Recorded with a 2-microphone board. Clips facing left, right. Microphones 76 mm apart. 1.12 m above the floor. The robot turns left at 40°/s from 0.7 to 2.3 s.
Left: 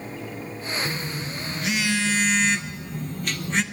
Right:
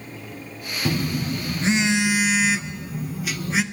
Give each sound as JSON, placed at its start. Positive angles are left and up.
{"t": 0.8, "sound": "a phone buzzing", "azimuth_deg": -115, "distance_m": 0.5}